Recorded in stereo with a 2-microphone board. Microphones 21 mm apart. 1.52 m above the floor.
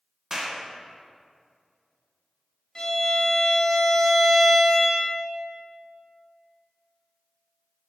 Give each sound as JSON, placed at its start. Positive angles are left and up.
{"t": 0.3, "sound": "a clap", "side_deg": -30, "distance_m": 0.9}
{"t": 2.8, "sound": "a violin", "side_deg": 30, "distance_m": 1.1}